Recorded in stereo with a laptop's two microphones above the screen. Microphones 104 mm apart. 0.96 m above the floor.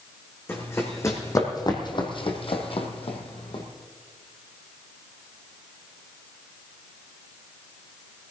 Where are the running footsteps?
20° left (ahead or behind), 3.5 m; by 3.6 s 55° left (ahead or behind), 2.5 m.